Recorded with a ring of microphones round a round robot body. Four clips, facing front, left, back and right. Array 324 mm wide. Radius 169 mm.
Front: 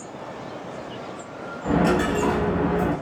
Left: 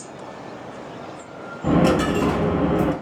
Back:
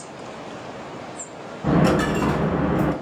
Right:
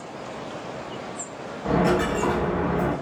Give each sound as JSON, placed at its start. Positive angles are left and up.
{"t": 1.6, "sound": "a dropped coin", "azimuth_deg": 125, "distance_m": 0.6}